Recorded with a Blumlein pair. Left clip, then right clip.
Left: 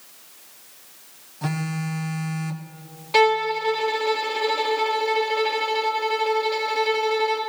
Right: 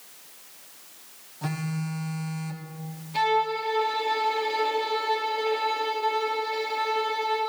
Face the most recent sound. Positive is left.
turn(degrees=40)